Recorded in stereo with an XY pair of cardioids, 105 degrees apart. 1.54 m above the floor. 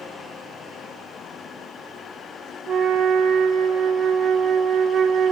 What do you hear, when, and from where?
2.7 s a flute: 60° right, 0.6 m